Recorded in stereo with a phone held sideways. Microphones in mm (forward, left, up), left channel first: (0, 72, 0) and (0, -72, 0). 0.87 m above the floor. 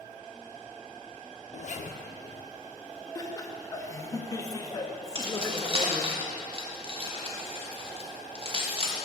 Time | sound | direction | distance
1.5 | a zipper | 55° left (ahead or behind) | 0.6 m
3.1 | laughter | 25° left (ahead or behind) | 0.9 m
5.2 | keys jangling | 40° right (ahead or behind) | 1.1 m